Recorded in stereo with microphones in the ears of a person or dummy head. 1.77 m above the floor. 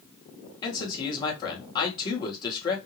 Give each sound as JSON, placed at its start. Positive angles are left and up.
{"t": 0.6, "sound": "a man speaking", "side_deg": 20, "distance_m": 1.9}